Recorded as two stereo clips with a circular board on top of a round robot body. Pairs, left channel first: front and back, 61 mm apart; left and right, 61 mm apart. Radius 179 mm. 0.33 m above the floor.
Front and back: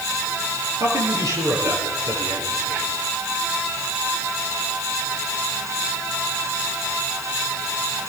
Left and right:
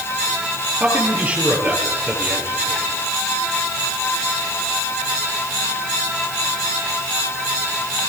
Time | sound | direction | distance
0.8 | a man speaking | 155° right | 9 m